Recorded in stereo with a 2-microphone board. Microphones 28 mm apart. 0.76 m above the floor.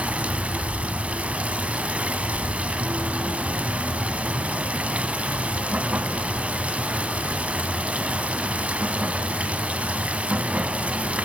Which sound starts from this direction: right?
Running water, at 0.0 s.